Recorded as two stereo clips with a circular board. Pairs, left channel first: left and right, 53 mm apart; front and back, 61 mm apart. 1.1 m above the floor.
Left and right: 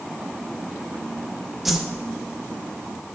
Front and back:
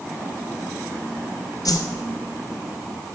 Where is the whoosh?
5° right, 0.6 m.